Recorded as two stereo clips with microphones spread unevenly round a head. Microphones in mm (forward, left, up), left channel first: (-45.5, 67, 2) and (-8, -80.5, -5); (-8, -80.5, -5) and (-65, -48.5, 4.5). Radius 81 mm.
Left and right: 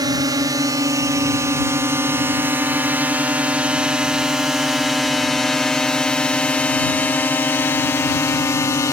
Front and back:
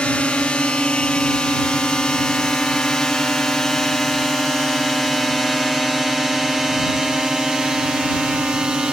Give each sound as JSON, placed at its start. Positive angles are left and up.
{"t": 0.0, "sound": "a drone", "azimuth_deg": -65}